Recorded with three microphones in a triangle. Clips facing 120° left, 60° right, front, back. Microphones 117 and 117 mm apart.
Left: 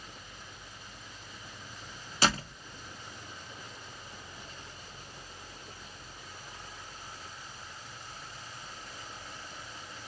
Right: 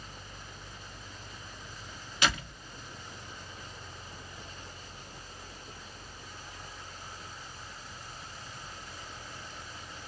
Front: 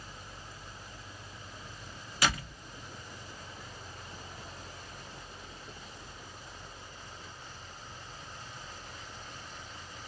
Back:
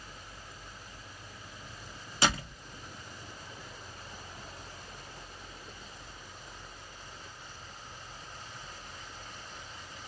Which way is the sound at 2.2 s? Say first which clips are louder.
Left 2 dB, back 2 dB; 140° left.